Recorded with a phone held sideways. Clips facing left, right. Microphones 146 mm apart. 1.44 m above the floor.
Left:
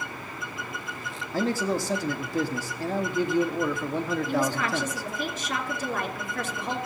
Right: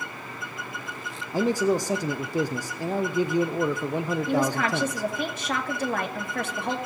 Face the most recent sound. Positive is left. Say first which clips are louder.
# right 4 dB
turn(degrees=-60)  # may be behind; listen again after turning